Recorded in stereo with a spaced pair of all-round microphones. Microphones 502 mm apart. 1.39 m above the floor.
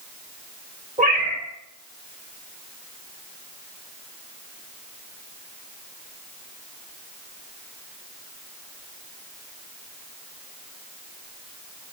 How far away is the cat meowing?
About 1.2 m.